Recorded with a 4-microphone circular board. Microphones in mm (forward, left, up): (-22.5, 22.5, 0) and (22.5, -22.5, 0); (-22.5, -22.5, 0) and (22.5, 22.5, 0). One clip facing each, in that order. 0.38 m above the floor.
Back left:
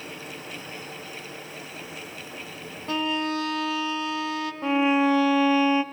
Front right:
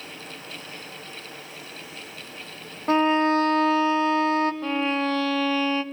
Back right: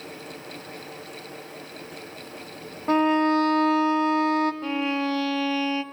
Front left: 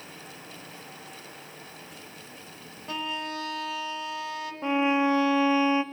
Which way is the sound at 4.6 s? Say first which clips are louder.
Back left 4 dB, front left 2 dB; 80° left.